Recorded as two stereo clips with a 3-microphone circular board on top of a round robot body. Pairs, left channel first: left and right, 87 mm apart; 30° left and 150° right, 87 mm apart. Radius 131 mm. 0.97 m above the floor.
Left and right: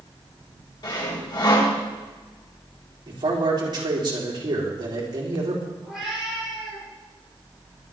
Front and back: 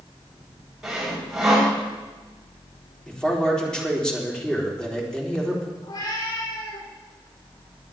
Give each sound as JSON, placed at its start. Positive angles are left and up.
{"t": 0.8, "sound": "sawing", "azimuth_deg": 125, "distance_m": 6.0}
{"t": 3.1, "sound": "a man speaking", "azimuth_deg": -50, "distance_m": 4.0}
{"t": 5.8, "sound": "a cat meowing", "azimuth_deg": -5, "distance_m": 7.0}